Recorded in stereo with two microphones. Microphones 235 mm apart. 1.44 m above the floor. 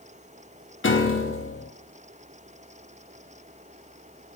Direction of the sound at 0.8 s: 55° left (ahead or behind).